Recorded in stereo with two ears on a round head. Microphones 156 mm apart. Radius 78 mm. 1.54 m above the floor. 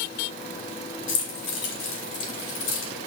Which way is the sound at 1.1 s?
80° left.